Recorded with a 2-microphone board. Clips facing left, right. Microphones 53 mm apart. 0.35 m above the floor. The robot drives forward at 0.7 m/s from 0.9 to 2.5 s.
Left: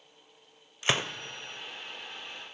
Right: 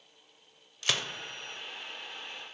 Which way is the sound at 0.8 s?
25° left (ahead or behind).